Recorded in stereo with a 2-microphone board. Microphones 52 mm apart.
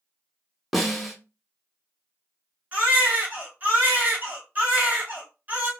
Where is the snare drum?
Centre (ahead or behind), 0.8 m.